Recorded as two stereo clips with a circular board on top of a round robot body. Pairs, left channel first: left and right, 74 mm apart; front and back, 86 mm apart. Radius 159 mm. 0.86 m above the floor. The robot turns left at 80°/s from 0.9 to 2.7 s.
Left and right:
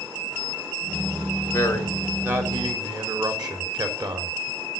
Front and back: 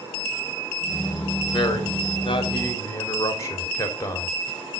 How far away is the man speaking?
About 3.5 m.